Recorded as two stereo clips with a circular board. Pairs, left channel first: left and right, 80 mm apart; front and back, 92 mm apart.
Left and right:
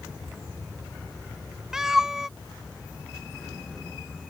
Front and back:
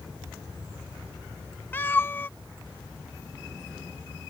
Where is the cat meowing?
15° right.